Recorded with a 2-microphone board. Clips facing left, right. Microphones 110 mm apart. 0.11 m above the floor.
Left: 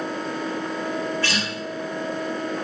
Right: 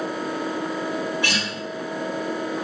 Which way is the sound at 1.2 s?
15° right (ahead or behind).